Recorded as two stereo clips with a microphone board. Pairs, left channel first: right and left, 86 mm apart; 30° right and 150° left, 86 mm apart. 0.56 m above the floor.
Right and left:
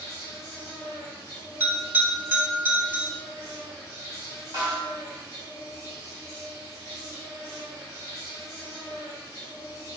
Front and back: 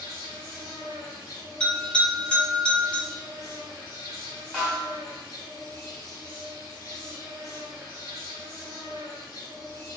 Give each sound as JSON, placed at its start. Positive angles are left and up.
{"t": 0.0, "sound": "an insect", "azimuth_deg": -45, "distance_m": 0.9}
{"t": 1.6, "sound": "a bell", "azimuth_deg": 40, "distance_m": 1.0}
{"t": 4.5, "sound": "a snare drum", "azimuth_deg": 50, "distance_m": 1.0}